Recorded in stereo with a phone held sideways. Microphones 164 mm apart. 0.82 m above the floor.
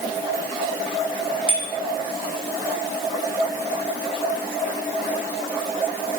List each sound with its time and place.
1.5 s a bicycle bell: 30° right (ahead or behind), 5 m